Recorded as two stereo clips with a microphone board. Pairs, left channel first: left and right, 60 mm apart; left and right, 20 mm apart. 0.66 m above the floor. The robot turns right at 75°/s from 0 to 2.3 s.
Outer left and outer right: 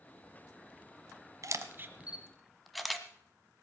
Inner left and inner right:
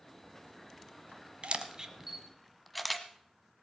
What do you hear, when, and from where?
1.4 s a camera shutter: 60° right (ahead or behind), 1.2 m; by 3.0 s centre (ahead or behind), 1.2 m